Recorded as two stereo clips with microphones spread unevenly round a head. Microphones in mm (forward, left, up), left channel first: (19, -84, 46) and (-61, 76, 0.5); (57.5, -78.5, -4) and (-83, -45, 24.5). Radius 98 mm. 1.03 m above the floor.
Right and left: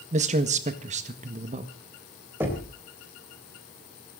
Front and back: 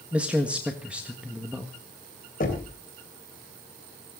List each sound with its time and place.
0.1 s a man speaking: 80° left, 1.5 m
2.4 s knocking: 35° left, 3.5 m